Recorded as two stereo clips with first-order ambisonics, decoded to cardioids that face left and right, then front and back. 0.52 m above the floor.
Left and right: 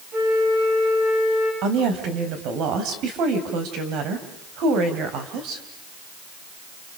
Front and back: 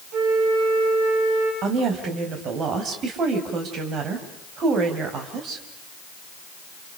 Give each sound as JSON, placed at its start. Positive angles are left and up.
{"t": 0.1, "sound": "a flute", "azimuth_deg": -150, "distance_m": 8.5}
{"t": 1.6, "sound": "a woman speaking", "azimuth_deg": -125, "distance_m": 3.5}